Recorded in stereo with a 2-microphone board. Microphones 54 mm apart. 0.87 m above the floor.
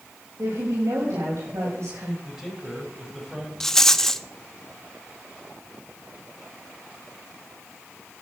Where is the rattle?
10° left (ahead or behind), 0.7 m.